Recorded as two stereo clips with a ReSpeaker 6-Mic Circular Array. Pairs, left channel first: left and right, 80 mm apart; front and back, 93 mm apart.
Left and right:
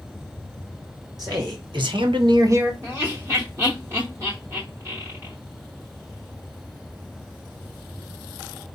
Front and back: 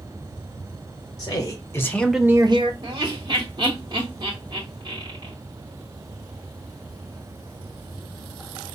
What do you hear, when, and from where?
1.2 s a man speaking: 50° right, 1.7 m; by 2.7 s 160° right, 0.8 m
2.8 s laughter: 145° right, 1.0 m